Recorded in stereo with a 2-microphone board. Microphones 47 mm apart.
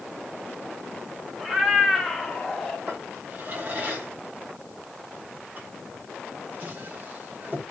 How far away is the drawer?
About 1.3 m.